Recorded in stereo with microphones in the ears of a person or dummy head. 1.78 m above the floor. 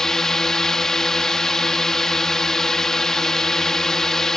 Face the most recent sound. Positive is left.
turn(degrees=0)  # may be behind; listen again after turning